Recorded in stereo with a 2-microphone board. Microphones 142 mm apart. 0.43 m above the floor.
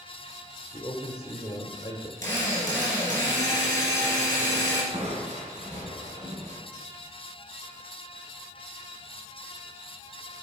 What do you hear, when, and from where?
0.7 s a man speaking: 25° left (ahead or behind), 0.9 m
2.2 s a drill: 70° right (ahead or behind), 3.5 m
4.9 s crushing: 55° right (ahead or behind), 2.5 m